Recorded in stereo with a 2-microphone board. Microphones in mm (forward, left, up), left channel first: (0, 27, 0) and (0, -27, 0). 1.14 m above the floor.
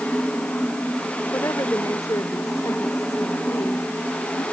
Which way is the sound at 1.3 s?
85° left.